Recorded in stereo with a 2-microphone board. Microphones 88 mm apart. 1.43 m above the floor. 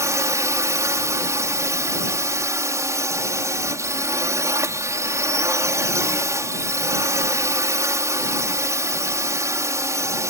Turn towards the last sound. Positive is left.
turn(degrees=-35)  # may be behind; listen again after turning